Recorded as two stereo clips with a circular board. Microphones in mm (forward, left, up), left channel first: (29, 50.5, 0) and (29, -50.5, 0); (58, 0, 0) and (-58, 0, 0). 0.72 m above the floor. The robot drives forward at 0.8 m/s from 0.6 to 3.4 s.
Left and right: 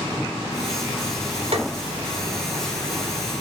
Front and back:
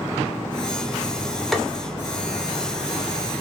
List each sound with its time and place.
1.5 s tapping: 90° right, 2.5 m